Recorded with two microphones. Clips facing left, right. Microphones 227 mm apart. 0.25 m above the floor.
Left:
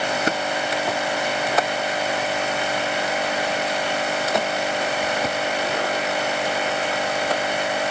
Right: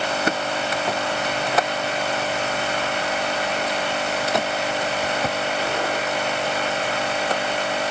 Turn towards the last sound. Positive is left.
No sound to turn to.